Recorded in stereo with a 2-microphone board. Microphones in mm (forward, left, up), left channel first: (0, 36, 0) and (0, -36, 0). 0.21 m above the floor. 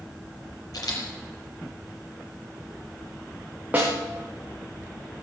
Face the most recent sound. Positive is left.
turn(degrees=-20)  # may be behind; listen again after turning